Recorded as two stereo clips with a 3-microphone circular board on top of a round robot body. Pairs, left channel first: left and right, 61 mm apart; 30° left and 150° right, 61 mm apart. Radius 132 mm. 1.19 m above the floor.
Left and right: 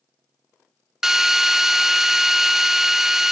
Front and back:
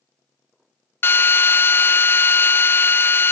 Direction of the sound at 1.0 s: 10° right.